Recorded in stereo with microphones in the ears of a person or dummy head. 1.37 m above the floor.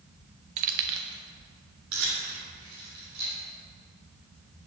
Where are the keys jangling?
40° right (ahead or behind), 0.6 m; by 3.3 s 70° right (ahead or behind), 4 m.